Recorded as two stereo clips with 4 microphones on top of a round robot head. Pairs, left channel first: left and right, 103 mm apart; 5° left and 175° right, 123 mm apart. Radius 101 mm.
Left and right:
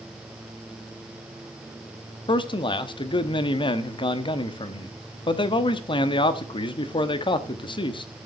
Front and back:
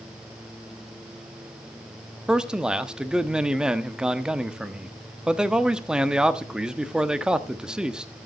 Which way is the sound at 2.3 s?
105° left.